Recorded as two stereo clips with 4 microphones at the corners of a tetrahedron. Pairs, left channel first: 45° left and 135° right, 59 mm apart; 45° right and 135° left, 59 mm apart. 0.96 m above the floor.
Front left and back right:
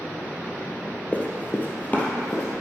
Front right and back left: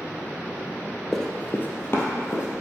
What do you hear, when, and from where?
1.1 s running footsteps: 35° left, 1.0 m; by 2.6 s 15° right, 2.5 m